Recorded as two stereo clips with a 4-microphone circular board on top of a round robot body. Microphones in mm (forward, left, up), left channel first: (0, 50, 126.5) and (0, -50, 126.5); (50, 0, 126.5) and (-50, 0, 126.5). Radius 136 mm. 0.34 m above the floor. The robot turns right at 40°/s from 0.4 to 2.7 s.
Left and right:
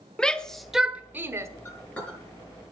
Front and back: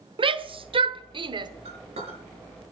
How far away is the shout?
About 1.3 m.